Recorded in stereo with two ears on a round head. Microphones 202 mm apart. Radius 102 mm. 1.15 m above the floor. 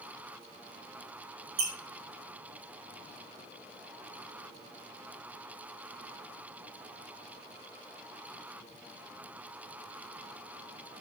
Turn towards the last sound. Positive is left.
turn(degrees=-85)